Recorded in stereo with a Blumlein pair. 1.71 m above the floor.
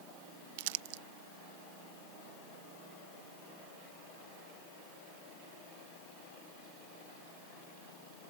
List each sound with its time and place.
0.6 s crumpling: 50° right